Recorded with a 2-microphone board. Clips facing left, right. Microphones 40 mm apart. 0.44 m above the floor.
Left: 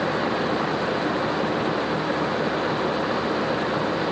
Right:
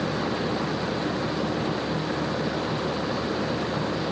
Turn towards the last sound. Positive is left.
No sound to turn to.